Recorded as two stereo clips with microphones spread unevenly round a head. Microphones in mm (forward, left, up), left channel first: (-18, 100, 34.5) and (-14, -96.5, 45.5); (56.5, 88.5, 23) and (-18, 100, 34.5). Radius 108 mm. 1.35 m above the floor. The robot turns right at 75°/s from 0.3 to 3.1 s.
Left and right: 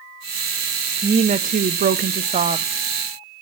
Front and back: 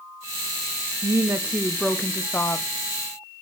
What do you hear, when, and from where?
1.0 s a woman speaking: 150° right, 0.5 m; by 2.7 s 30° right, 0.5 m